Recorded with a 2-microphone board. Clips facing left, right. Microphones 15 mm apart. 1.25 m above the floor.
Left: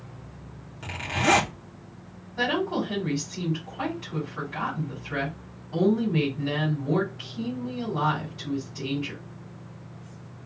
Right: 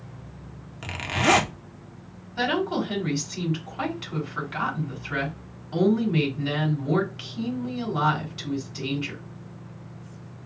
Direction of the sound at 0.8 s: 25° right (ahead or behind).